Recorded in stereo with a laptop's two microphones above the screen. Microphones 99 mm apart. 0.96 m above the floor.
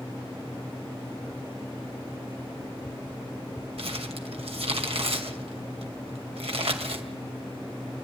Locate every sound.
3.8 s crumpling: 75° right (ahead or behind), 2 m